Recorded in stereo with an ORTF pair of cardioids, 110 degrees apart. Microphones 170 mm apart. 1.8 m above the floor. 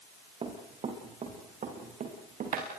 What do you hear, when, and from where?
0.4 s running footsteps: 35° right, 7 m; by 2.7 s 55° right, 8 m